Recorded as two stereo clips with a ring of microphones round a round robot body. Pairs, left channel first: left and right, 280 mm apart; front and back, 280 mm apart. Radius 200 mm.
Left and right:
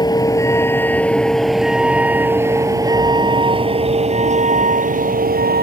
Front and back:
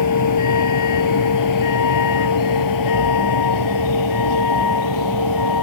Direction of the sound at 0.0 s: 15° left.